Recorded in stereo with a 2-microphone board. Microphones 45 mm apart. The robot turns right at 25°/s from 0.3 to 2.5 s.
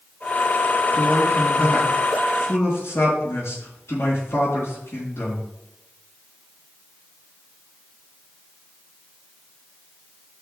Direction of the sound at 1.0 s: 45° left.